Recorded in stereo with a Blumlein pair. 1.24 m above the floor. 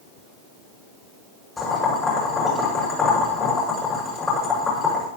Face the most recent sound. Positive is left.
turn(degrees=15)